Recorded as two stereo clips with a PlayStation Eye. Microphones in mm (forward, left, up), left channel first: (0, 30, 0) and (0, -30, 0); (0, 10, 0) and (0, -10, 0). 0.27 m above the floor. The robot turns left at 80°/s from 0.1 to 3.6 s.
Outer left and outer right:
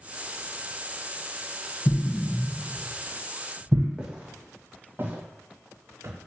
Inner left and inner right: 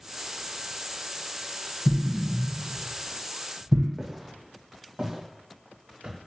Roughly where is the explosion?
Left.